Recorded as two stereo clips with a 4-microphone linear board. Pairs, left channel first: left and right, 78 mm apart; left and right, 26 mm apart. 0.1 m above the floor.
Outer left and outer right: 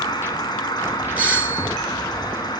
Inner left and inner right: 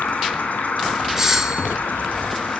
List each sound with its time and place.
0.0 s an insect: 55° left (ahead or behind), 2.0 m
1.2 s a doorbell: 20° right (ahead or behind), 2.0 m